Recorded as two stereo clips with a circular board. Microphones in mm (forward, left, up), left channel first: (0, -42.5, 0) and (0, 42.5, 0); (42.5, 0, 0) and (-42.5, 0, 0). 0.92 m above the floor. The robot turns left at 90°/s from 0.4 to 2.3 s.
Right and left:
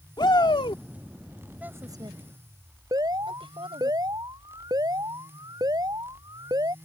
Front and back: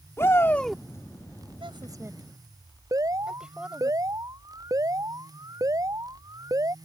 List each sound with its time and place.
0.2 s a shout: 60° right; by 0.8 s 95° right
1.6 s a woman speaking: 165° left; by 3.9 s 100° left
2.9 s an alarm: 135° left